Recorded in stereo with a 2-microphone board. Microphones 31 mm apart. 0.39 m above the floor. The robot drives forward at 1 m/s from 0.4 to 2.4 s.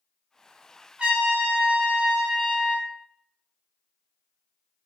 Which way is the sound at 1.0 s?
40° right (ahead or behind).